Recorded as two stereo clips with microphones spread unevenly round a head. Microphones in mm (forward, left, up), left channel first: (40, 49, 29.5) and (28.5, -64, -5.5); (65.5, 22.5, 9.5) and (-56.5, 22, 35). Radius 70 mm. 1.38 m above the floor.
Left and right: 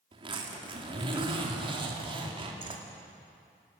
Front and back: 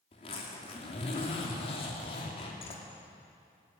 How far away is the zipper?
About 4 m.